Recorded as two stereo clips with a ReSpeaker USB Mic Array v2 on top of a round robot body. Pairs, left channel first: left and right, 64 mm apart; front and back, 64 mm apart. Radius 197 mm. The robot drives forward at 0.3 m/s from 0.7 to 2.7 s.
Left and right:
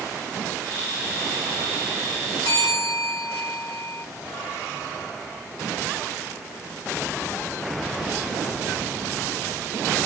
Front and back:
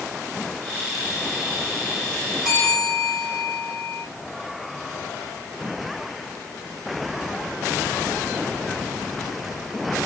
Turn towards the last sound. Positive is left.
turn(degrees=105)